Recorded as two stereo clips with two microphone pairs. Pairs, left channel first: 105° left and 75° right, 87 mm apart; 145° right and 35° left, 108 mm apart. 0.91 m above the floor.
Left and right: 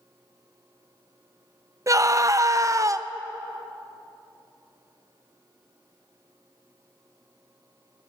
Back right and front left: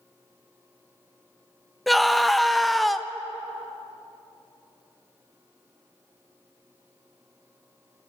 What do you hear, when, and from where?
1.9 s a scream: 60° right, 0.5 m